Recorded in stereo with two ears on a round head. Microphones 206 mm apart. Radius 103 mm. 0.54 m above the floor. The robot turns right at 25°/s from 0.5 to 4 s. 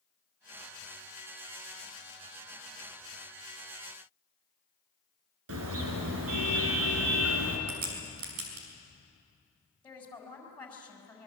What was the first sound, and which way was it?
A car horn, 70° right (ahead or behind).